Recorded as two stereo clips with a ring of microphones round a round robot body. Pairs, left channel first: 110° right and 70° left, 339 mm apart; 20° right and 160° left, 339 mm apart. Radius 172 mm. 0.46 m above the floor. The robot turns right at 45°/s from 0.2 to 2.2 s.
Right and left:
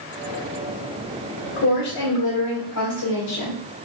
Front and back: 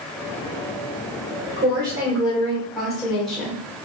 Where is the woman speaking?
140° right, 1.4 m; by 3.6 s 110° right, 1.4 m.